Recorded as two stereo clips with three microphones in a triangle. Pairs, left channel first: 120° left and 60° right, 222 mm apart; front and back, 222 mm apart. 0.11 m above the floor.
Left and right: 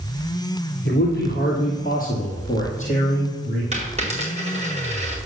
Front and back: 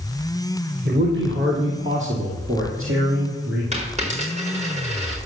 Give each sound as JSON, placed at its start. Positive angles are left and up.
{"t": 0.8, "sound": "a man speaking", "azimuth_deg": 150, "distance_m": 2.5}
{"t": 3.7, "sound": "a dropped coin", "azimuth_deg": -120, "distance_m": 5.0}